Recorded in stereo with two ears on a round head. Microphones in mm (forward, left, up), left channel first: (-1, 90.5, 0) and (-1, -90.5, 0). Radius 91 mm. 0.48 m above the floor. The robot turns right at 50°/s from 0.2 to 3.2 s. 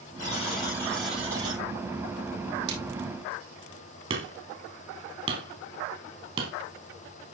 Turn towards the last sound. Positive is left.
turn(degrees=-30)  # may be behind; listen again after turning